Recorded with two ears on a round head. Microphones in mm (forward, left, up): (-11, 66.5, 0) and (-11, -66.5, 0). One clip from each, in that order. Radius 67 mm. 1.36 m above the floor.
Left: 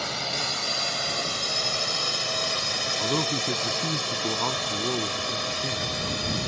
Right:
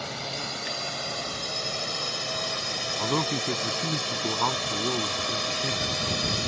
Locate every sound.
0.0 s a drone: 35° left (ahead or behind); by 6.5 s 15° right (ahead or behind)
3.0 s a man speaking: 70° right (ahead or behind)